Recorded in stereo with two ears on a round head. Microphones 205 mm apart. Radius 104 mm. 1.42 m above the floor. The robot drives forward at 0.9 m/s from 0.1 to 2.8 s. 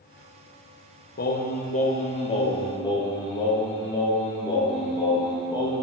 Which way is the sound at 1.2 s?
45° left (ahead or behind).